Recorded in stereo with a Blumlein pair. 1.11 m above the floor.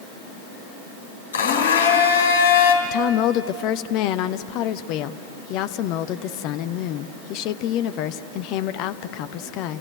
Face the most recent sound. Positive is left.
turn(degrees=40)